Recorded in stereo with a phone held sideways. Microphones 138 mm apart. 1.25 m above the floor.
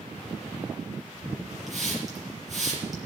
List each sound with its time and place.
1.7 s a hiss: centre (ahead or behind), 5.5 m